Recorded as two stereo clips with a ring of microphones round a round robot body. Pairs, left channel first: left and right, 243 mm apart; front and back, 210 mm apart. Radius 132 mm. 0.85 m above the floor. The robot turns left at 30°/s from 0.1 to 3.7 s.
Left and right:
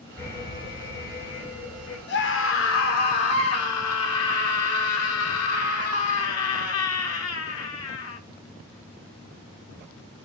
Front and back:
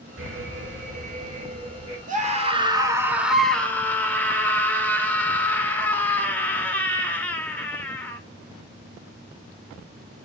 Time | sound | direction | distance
0.2 | an alarm | 170° left | 4.5 m
2.1 | a scream | 130° left | 2 m